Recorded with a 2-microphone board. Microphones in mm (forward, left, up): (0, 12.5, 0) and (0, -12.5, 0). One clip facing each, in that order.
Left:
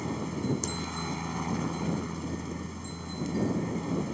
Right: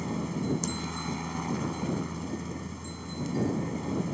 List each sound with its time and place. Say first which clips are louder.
0.0 s a helicopter: even; centre (ahead or behind)